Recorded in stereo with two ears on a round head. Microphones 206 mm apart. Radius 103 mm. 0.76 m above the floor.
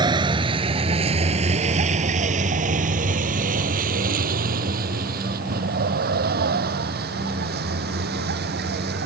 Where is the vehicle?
20° right (ahead or behind); by 9.1 s 45° right (ahead or behind).